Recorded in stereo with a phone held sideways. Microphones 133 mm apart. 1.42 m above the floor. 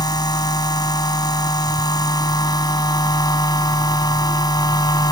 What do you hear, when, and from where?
0.0 s a machine running: 30° left (ahead or behind)